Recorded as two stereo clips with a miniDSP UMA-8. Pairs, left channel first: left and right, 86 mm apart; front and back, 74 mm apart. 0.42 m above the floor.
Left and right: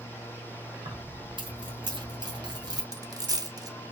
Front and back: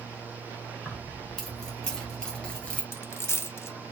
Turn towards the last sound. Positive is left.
turn(degrees=-55)